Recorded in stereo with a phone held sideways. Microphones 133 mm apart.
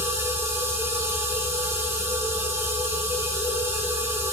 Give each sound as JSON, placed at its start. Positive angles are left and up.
{"t": 0.0, "sound": "a machine running", "side_deg": -20, "distance_m": 3.5}